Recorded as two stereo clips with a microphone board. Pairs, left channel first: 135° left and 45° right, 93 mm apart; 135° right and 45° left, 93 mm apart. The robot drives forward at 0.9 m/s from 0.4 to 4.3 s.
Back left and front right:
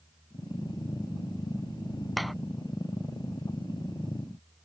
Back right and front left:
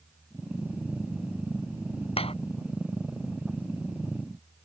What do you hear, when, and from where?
2.2 s a clap: 135° right